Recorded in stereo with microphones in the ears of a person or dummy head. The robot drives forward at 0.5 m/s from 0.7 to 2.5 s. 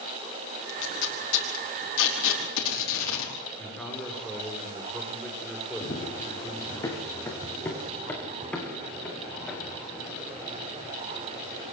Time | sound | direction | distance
0.7 | tape being pulled | 65° left (ahead or behind) | 5 m
3.6 | a man speaking | centre (ahead or behind) | 7 m
5.8 | running footsteps | 25° left (ahead or behind) | 3.5 m